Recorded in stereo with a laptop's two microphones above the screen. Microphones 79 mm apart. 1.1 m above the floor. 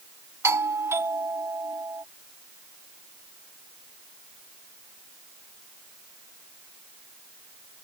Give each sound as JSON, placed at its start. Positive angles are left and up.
{"t": 0.4, "sound": "a doorbell", "side_deg": -35}